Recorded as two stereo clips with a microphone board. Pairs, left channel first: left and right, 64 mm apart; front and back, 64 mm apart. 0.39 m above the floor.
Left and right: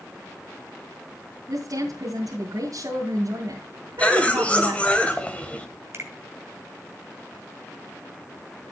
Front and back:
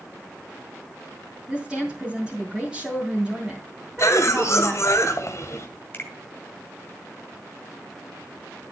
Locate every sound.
1.5 s a woman speaking: 100° right, 3 m
4.0 s a cough: 25° left, 2 m
5.9 s a finger snap: 55° right, 2 m